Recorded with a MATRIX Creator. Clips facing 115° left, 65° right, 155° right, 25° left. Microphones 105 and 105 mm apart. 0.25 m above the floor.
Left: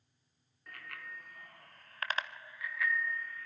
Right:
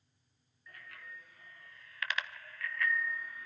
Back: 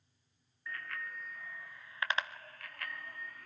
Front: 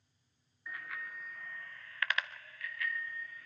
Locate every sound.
0.7 s a bicycle bell: 100° left, 2 m; by 3.5 s 140° right, 1.6 m